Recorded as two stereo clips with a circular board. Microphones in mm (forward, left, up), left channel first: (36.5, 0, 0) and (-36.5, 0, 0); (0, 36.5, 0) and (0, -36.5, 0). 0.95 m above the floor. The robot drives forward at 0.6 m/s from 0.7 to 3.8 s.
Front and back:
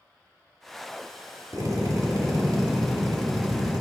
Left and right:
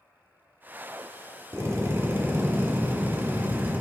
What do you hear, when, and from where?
1.5 s a drill: 140° right, 1.7 m; by 3.8 s 155° right, 3 m